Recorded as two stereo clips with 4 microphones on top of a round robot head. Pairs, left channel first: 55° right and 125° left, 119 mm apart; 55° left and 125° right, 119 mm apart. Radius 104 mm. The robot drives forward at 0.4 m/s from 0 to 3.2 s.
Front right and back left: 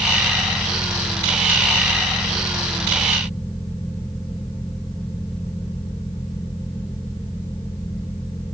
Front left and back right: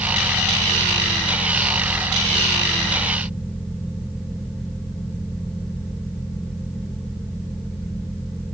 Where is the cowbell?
I don't hear a cowbell.